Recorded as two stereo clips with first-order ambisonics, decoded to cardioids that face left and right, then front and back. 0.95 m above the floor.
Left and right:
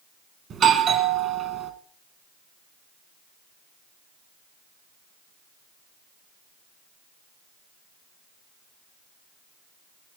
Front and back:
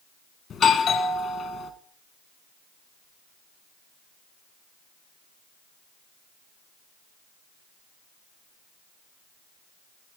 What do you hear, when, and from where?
0.5 s a doorbell: 50° right, 1.1 m